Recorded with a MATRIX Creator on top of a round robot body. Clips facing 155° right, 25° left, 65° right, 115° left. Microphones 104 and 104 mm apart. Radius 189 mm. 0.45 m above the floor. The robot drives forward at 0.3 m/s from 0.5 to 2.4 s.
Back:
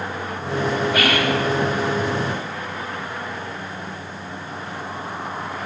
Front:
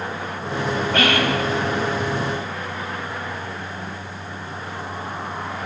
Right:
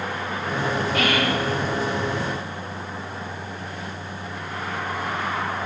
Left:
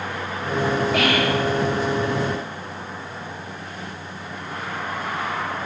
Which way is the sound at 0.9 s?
125° left.